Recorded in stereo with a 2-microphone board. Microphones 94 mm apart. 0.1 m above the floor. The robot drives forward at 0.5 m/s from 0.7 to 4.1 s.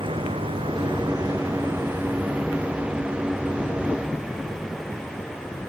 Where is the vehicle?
65° right (ahead or behind); by 5.7 s 5° left (ahead or behind).